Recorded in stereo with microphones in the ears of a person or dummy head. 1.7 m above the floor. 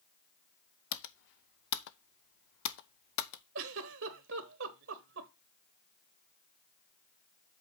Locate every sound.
0.9 s typing on a keyboard: 65° left (ahead or behind), 0.6 m
3.5 s a giggle: 80° right, 1.0 m